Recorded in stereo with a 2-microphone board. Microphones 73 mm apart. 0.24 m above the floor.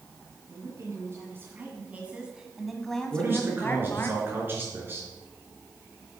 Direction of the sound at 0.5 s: 40° right (ahead or behind).